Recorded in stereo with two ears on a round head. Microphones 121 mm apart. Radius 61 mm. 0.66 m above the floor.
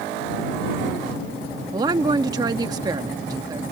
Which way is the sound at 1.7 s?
30° right (ahead or behind).